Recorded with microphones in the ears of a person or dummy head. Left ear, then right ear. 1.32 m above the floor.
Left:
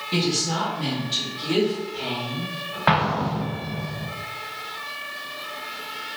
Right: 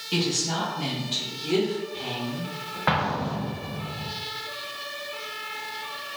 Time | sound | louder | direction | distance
0.1 | a woman speaking | left 2 dB | 30° right (ahead or behind) | 1.4 m
2.9 | an explosion | left 4 dB | 10° left (ahead or behind) | 0.5 m